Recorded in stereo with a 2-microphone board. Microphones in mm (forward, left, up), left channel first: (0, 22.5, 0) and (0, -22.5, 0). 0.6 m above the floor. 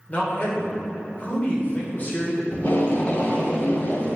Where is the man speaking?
40° left (ahead or behind), 2.5 m.